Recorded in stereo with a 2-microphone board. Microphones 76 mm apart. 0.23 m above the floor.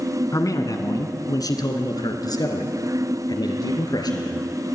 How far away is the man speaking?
About 1.9 m.